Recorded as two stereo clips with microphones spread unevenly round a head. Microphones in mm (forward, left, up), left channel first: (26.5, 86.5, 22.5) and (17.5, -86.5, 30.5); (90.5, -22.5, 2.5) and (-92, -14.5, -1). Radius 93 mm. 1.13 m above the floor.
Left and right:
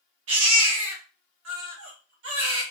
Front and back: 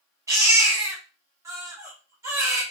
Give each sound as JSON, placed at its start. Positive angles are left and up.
{"t": 0.3, "sound": "a baby crying", "azimuth_deg": -110, "distance_m": 1.7}